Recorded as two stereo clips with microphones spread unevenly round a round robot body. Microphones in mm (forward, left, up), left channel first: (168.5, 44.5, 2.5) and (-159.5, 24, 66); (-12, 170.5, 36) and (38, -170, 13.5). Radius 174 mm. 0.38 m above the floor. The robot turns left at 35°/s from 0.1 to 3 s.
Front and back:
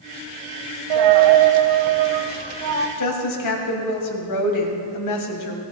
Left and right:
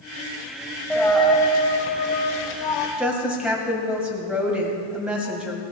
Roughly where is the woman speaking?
Ahead.